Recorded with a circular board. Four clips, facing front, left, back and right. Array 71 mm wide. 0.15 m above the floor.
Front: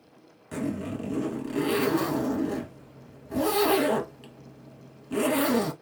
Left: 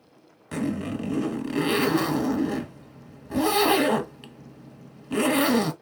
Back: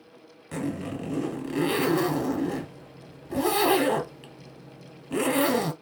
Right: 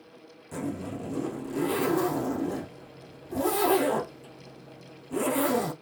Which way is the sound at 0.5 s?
100° left.